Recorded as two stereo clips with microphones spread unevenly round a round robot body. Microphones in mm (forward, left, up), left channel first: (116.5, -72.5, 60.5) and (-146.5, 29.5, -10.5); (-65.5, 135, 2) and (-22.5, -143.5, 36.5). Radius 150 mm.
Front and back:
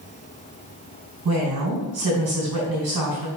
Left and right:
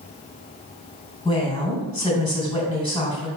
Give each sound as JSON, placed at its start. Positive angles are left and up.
{"t": 1.2, "sound": "a woman speaking", "azimuth_deg": 170, "distance_m": 3.0}